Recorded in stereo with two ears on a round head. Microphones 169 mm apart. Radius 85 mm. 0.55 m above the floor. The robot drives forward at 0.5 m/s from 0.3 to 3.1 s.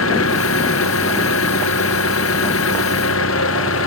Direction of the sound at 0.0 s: 85° left.